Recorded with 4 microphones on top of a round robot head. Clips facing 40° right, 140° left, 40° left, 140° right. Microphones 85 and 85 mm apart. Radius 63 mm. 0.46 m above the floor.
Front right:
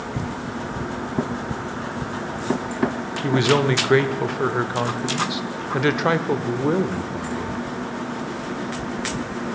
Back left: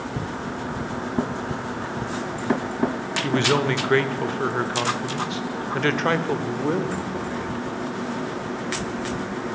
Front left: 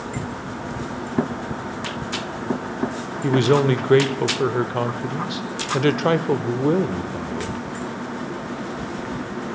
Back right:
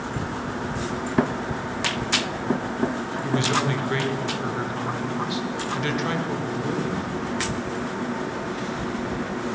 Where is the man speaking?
35° left, 1.5 m.